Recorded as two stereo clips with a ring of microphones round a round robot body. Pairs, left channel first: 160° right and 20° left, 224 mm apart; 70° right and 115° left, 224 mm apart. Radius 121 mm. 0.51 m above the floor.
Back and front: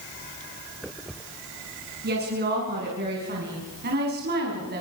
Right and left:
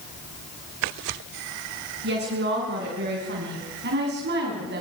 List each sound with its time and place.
2.0 s a woman speaking: 70° left, 6 m